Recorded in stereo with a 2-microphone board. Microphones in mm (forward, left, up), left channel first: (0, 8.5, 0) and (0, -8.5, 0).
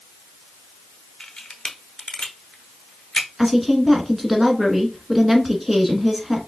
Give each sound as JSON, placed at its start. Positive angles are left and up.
{"t": 1.2, "sound": "a camera shutter", "side_deg": 50, "distance_m": 1.0}
{"t": 3.4, "sound": "a woman speaking", "side_deg": -5, "distance_m": 1.3}